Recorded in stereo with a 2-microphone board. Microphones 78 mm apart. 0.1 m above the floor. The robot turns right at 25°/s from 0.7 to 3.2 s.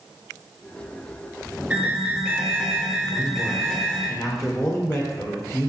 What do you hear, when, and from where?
1.7 s an alarm: 15° right (ahead or behind), 1.6 m; by 4.1 s centre (ahead or behind), 1.6 m
3.1 s a man speaking: 40° left (ahead or behind), 3 m; by 5.7 s 35° left (ahead or behind), 3 m